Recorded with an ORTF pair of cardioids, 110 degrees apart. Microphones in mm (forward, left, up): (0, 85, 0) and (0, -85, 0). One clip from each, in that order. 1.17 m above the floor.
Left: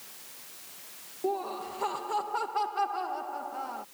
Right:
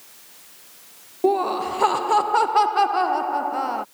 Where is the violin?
I don't hear a violin.